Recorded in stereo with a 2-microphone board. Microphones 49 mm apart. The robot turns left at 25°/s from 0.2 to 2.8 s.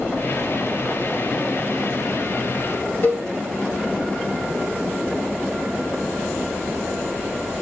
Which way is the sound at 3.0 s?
55° left (ahead or behind).